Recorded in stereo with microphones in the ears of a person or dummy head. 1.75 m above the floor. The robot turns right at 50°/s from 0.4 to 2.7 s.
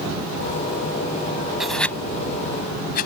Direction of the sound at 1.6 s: 5° right (ahead or behind).